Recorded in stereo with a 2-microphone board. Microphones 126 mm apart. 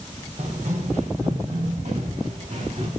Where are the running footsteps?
70° right (ahead or behind), 2.5 m; by 2.9 s 75° right (ahead or behind), 5 m.